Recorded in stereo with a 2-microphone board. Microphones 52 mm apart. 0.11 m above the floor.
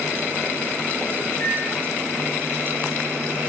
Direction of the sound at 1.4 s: 25° left (ahead or behind).